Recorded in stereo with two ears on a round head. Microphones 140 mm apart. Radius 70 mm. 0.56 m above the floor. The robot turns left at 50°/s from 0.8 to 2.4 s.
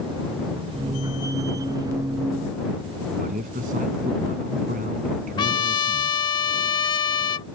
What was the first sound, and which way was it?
A man speaking, 50° right (ahead or behind).